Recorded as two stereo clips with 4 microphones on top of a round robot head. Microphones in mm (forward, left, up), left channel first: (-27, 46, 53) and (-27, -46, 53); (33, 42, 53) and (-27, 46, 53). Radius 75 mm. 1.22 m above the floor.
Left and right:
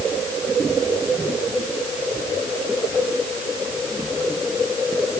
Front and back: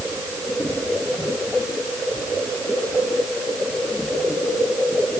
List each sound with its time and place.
Only background noise.